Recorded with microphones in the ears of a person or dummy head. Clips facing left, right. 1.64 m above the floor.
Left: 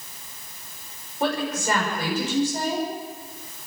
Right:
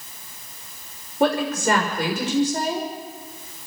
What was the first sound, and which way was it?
A woman speaking, 55° right (ahead or behind).